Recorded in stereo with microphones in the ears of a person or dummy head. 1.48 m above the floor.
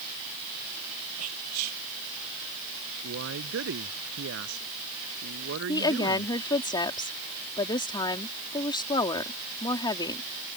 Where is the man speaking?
65° right (ahead or behind).